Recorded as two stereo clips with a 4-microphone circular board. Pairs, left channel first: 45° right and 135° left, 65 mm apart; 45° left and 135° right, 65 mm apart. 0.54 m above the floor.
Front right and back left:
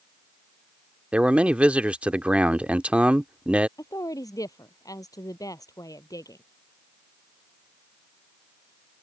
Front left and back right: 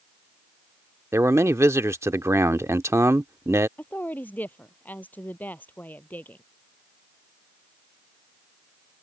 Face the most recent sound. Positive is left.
turn(degrees=-20)